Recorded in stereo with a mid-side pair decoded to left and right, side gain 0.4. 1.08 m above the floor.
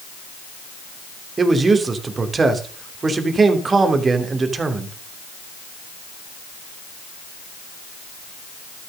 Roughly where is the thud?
I don't hear a thud.